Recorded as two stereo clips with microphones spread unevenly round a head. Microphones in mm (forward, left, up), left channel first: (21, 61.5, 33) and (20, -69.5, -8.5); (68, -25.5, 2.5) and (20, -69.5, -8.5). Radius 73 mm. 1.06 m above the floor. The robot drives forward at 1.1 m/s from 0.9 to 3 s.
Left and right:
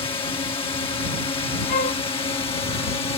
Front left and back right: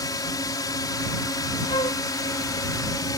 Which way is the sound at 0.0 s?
35° left.